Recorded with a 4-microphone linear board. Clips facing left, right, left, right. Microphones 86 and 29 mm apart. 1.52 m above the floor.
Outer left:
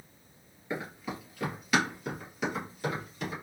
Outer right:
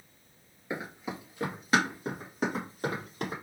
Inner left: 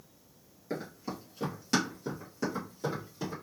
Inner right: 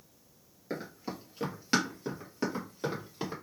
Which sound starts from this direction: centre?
Running footsteps, at 0.7 s.